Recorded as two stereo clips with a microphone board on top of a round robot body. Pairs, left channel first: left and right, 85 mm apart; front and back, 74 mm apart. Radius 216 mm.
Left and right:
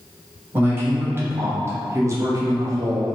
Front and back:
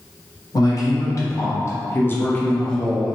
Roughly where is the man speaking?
Ahead right.